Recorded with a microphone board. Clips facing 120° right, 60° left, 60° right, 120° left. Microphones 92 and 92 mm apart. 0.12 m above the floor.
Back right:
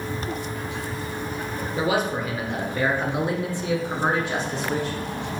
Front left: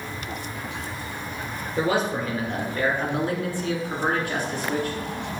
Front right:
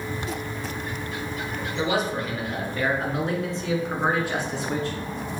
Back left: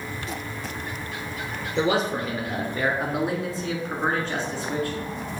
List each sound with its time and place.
1.8 s a man speaking: 165° left, 2 m; by 5.0 s 80° right, 1.6 m